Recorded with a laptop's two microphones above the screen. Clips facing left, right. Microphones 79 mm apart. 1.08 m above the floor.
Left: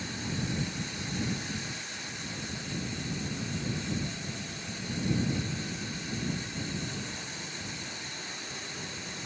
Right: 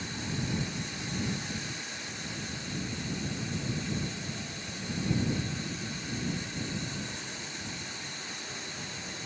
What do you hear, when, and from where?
Only background noise.